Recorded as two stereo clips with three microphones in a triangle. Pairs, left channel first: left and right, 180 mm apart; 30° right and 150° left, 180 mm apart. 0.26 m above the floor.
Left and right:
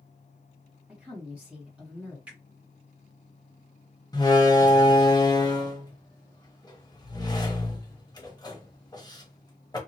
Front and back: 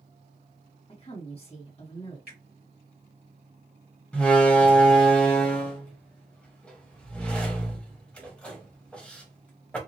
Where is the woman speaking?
10° right, 1.7 m.